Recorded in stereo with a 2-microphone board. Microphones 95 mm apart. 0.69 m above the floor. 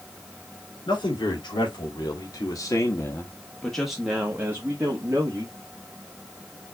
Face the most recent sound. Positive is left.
turn(degrees=-40)  # may be behind; listen again after turning